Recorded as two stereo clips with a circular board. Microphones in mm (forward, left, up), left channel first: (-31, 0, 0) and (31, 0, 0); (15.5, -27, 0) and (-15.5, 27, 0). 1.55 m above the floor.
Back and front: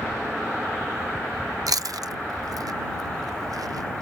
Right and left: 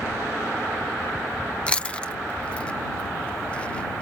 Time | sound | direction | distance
1.7 | chewing | 10° left | ?